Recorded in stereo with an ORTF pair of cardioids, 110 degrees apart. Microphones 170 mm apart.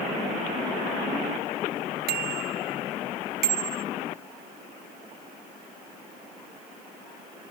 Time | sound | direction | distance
2.1 | a bicycle bell | 70° right | ?